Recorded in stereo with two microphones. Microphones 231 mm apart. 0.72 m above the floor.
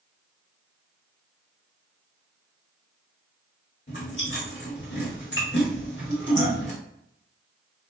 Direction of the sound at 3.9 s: 55° left (ahead or behind).